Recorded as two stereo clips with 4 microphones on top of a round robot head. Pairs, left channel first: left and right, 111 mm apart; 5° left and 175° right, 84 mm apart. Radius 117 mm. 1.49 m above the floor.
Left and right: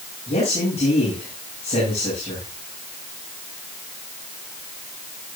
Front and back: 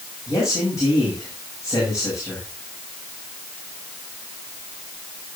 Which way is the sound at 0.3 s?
55° left.